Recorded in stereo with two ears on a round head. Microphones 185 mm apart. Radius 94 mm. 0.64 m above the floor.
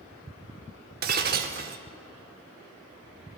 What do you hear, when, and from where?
1.0 s breaking glass: 45° right (ahead or behind), 1.0 m